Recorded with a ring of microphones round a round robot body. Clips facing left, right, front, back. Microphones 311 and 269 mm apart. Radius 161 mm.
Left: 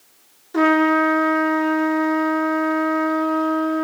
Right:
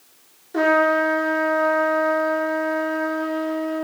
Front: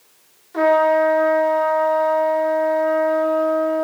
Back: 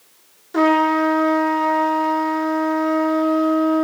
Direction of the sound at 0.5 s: 160° left.